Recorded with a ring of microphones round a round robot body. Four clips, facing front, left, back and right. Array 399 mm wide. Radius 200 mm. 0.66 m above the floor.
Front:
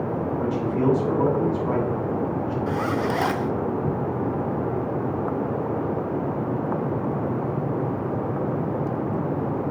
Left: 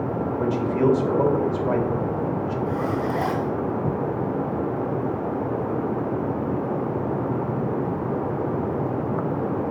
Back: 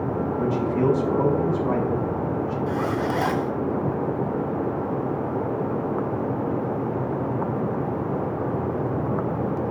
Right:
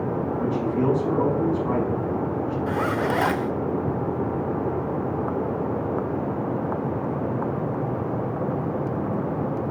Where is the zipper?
85° right, 0.6 m.